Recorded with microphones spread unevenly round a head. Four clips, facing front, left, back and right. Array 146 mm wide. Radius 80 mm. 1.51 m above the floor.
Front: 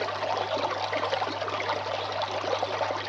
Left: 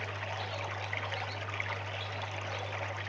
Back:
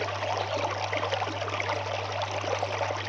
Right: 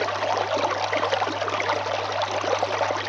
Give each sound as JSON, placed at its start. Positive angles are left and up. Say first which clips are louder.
{"t": 0.0, "sound": "running water", "louder": "right 16 dB, front 1 dB", "azimuth_deg": -80, "distance_m": 0.7}